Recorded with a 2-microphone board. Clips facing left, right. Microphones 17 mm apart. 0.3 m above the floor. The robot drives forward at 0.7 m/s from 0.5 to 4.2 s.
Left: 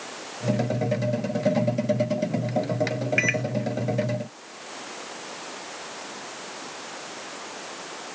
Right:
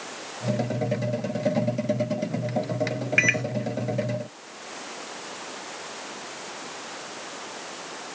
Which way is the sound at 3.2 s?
10° right (ahead or behind).